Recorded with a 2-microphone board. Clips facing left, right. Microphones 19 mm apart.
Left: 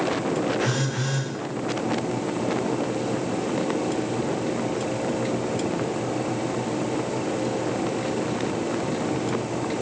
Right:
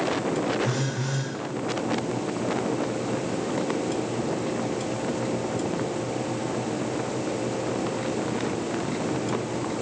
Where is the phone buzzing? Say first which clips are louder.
Left 2 dB; 65° left (ahead or behind), 8.5 m.